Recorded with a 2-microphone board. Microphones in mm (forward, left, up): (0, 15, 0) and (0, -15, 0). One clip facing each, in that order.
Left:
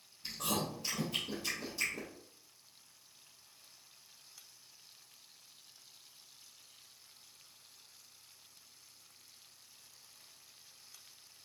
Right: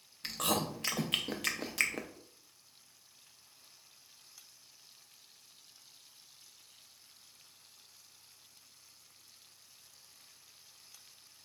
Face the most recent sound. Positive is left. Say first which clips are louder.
# right 3 dB
turn(degrees=-65)  # may be behind; listen again after turning